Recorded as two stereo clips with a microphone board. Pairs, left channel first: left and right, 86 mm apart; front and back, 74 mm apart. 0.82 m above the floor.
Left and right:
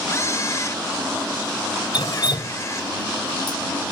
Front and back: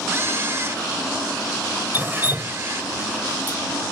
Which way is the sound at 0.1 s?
135° left.